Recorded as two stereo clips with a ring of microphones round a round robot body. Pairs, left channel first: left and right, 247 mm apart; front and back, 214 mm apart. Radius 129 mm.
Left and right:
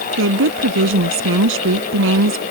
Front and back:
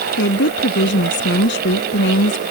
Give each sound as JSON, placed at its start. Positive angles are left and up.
{"t": 0.2, "sound": "a woman speaking", "azimuth_deg": -50}